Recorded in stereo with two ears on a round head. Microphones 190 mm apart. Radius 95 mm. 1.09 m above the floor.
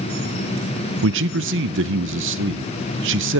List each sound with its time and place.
1.0 s a man speaking: 60° right (ahead or behind), 0.5 m